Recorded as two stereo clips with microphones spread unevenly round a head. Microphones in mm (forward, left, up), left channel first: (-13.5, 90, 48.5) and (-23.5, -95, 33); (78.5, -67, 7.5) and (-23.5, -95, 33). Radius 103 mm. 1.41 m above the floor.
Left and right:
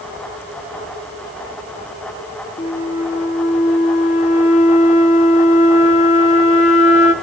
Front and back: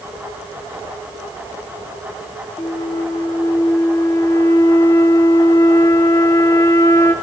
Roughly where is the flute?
Left.